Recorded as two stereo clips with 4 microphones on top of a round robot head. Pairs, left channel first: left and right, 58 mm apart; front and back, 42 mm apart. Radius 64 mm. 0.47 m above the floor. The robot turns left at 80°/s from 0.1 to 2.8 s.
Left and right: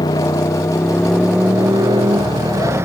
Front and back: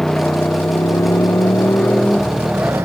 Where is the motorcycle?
80° left; by 2.9 s 135° right.